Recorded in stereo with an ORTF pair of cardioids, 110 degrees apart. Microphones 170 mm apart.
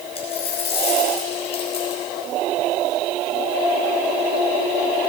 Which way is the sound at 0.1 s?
35° left.